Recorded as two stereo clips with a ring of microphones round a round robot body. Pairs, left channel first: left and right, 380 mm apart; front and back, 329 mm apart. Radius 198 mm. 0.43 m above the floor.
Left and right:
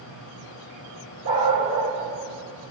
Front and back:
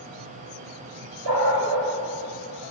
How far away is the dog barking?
About 5 m.